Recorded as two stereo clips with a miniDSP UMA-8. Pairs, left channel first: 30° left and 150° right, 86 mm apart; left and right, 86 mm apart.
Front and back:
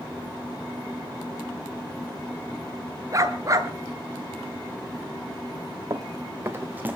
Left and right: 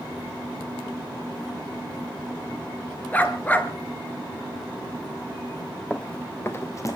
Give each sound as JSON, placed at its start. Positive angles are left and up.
{"t": 3.1, "sound": "a dog barking", "azimuth_deg": 160, "distance_m": 1.7}
{"t": 5.9, "sound": "running footsteps", "azimuth_deg": 170, "distance_m": 1.9}